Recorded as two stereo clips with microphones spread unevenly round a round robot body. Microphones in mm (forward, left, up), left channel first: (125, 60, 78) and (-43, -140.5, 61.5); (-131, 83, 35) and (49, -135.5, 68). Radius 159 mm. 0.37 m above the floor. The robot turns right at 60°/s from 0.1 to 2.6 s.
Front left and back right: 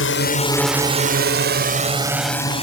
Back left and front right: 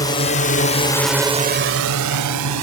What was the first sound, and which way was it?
A drone, 65° left.